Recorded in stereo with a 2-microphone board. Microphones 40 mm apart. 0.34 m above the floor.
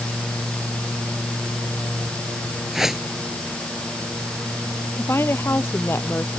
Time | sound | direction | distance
2.7 | a whoosh | 10° right (ahead or behind) | ?
5.0 | a woman speaking | 75° left (ahead or behind) | ?